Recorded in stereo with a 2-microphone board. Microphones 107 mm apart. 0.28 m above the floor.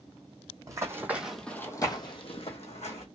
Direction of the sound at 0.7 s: 30° right (ahead or behind).